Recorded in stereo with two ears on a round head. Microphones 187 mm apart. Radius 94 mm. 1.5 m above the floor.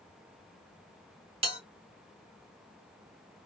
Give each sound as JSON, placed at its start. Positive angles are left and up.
{"t": 1.4, "sound": "a bell", "side_deg": -25, "distance_m": 1.3}